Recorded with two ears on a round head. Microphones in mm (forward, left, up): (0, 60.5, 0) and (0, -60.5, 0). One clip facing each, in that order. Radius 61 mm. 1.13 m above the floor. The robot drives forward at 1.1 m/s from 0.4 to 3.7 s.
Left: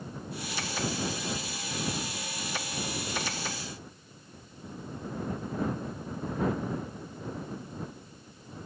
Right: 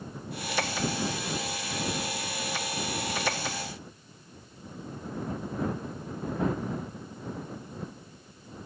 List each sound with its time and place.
Only background noise.